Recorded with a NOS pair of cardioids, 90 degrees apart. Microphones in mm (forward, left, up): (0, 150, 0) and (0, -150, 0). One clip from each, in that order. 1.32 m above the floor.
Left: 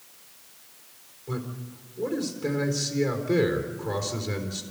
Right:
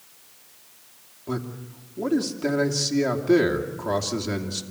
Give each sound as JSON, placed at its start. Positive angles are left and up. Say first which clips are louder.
{"t": 1.3, "sound": "a man speaking", "louder": "right 4 dB", "azimuth_deg": -65, "distance_m": 3.0}